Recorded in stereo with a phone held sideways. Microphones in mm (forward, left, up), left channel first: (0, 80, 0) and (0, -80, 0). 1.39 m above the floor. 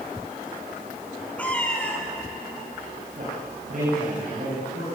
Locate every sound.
1.4 s a cat meowing: 10° left (ahead or behind), 3.5 m
3.2 s a man speaking: 55° right (ahead or behind), 8.5 m